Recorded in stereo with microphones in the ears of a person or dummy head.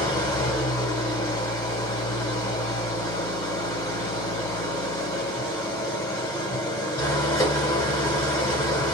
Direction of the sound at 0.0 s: 20° left (ahead or behind).